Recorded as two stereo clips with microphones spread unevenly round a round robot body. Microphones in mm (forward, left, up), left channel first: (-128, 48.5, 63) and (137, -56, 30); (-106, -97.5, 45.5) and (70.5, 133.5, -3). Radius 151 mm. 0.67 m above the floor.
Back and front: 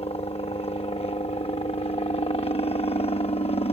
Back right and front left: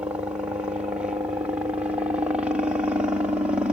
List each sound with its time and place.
0.0 s a helicopter: 105° left